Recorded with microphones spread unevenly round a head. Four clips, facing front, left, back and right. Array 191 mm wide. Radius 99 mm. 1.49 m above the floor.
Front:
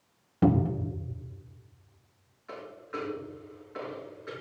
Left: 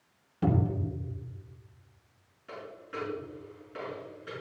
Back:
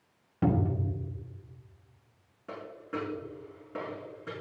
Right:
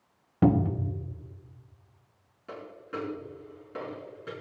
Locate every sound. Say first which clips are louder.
0.4 s a cupboard door: right 5 dB, front 3 dB; 60° right, 1.4 m
2.5 s a dropped coin: right 2 dB, back 1 dB; 155° right, 6 m